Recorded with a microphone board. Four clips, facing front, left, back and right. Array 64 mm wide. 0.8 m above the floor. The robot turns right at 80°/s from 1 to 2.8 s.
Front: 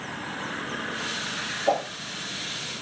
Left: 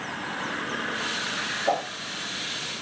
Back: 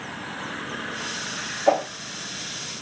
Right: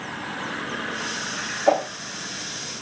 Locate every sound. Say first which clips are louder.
1.7 s a whoosh: right 7 dB, back 4 dB; 140° right, 0.7 m; by 1.9 s 120° right, 0.7 m